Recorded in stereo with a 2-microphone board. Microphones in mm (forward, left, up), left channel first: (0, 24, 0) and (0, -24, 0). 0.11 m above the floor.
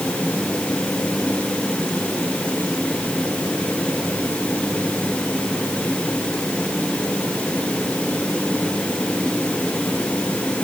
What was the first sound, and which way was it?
Only background noise.